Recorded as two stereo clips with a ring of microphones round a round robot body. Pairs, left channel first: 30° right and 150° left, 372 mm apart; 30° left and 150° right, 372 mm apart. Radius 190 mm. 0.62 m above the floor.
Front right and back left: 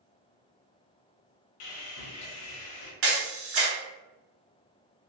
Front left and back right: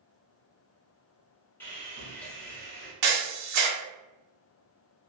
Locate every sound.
1.6 s sawing: 55° right, 0.6 m
3.0 s a camera shutter: 170° right, 0.9 m